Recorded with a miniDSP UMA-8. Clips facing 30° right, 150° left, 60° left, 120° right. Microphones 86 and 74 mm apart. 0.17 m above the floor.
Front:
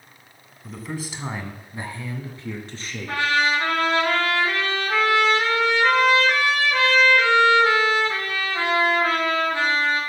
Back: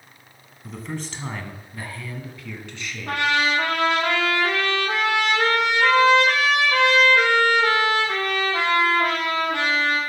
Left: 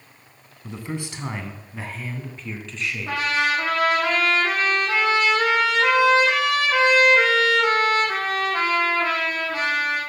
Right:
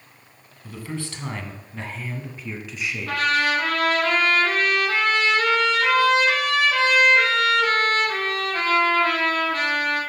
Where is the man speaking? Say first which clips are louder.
Even, left 1 dB; 60° left, 1.4 m; by 3.3 s 55° right, 1.8 m.